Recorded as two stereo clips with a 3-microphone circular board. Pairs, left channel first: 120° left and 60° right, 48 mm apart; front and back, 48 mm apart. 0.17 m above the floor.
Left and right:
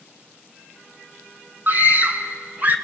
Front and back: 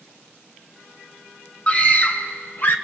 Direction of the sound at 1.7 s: 45° right.